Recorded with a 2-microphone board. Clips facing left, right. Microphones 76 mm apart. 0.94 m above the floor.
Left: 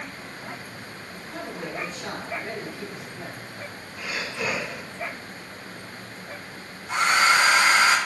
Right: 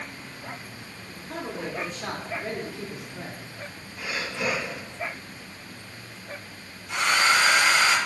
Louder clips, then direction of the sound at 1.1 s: Right 2 dB; 80° right.